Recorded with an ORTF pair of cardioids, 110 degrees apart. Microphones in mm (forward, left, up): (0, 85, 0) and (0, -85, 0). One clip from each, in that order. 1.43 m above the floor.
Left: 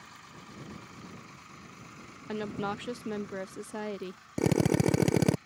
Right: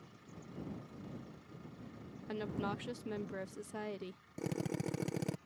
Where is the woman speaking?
25° left.